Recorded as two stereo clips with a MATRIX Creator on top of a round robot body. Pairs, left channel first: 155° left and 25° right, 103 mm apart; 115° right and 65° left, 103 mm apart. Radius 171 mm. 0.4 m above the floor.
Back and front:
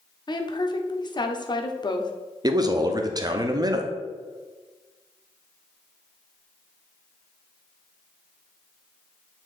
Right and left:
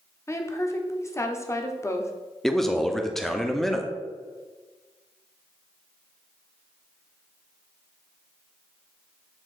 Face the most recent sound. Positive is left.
turn(degrees=-30)